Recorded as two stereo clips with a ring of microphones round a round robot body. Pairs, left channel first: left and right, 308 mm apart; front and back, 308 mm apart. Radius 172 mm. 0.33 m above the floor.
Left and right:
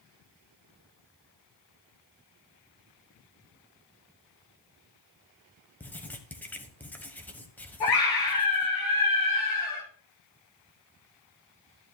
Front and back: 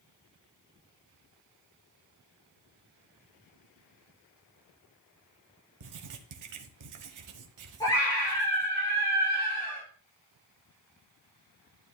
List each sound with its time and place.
5.8 s writing: 175° left, 1.4 m
7.8 s a scream: 80° left, 5.5 m